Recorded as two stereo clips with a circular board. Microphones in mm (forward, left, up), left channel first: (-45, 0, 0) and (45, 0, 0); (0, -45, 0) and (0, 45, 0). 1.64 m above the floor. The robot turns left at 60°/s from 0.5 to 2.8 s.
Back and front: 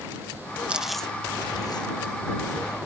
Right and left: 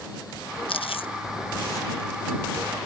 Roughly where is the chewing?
Right.